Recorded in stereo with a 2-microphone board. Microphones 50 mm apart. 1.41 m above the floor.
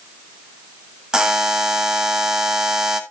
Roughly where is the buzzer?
Centre.